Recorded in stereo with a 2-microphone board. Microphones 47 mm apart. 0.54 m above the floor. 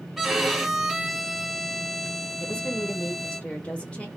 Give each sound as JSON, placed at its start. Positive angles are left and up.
{"t": 0.2, "sound": "a violin", "side_deg": -5, "distance_m": 0.8}
{"t": 2.4, "sound": "a woman speaking", "side_deg": 25, "distance_m": 1.2}